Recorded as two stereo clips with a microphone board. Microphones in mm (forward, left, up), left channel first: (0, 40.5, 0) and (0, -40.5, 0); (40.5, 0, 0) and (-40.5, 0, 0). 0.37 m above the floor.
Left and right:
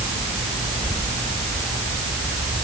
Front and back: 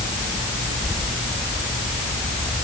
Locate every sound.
Only background noise.